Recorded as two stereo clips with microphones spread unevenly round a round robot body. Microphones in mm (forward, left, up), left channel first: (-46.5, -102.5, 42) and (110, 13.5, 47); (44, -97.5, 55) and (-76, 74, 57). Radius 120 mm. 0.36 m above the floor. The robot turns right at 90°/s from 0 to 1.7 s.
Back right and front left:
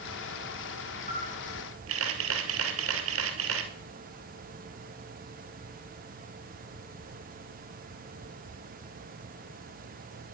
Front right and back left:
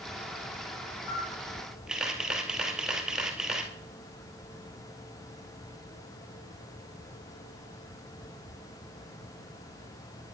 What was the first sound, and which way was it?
A camera shutter, 20° right.